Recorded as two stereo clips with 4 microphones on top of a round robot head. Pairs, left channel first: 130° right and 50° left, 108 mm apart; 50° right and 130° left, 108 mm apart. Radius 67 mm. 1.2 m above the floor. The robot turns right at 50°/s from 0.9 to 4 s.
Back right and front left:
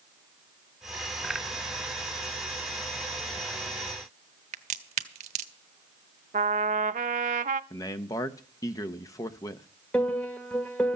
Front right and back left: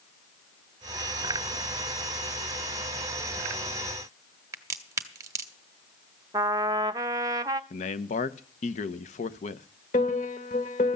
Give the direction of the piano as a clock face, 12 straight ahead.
2 o'clock.